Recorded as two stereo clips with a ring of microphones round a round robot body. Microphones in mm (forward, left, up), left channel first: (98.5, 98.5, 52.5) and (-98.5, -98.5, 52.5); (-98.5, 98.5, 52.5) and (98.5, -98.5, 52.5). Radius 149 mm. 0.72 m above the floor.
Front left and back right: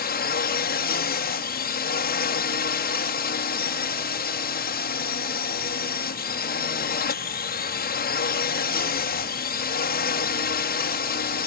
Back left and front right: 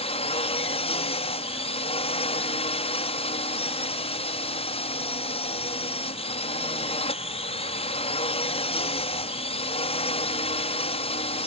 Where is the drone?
80° left.